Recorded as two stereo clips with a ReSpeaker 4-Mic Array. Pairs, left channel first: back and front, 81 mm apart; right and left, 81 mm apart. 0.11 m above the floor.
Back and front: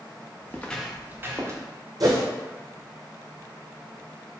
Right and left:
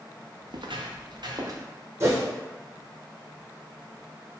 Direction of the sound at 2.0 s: 35° left.